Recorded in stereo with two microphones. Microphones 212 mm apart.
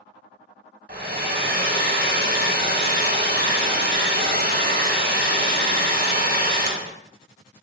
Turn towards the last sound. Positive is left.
turn(degrees=-50)  # may be behind; listen again after turning